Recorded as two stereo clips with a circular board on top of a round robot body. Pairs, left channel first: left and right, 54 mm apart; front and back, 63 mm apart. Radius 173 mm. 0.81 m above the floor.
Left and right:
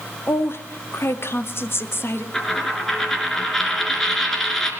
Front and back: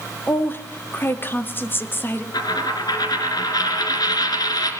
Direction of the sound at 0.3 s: 50° left.